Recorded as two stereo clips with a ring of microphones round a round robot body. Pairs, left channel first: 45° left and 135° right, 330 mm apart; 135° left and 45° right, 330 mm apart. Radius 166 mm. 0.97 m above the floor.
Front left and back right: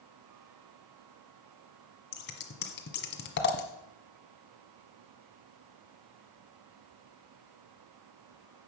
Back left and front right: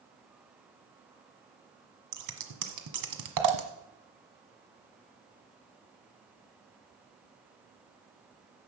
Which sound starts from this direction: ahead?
Scissors, at 2.1 s.